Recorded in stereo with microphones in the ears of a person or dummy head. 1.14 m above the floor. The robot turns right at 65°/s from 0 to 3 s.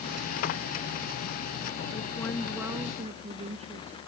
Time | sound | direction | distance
1.9 | a woman speaking | 145° left | ?